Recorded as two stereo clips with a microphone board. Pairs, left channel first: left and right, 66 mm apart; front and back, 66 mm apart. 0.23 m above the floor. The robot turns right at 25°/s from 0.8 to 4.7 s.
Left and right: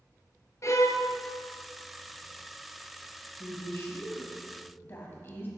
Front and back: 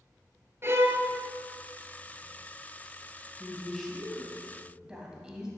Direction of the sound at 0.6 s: 130° left.